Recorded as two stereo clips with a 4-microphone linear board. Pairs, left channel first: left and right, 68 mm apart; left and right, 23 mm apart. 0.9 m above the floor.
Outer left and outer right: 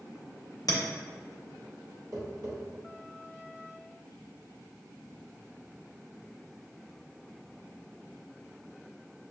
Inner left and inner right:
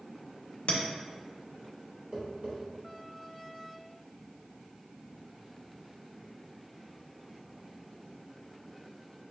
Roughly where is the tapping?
Right.